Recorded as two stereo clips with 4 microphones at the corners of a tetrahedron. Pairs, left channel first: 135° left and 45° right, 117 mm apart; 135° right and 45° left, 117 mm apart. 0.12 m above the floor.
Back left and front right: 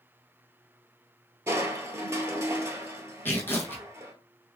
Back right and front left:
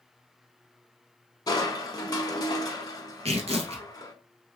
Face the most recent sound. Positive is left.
turn(degrees=65)